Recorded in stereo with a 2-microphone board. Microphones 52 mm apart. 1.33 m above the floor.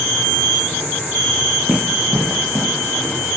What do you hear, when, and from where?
1.7 s running footsteps: 35° right (ahead or behind), 3.5 m; by 3.4 s 55° right (ahead or behind), 4 m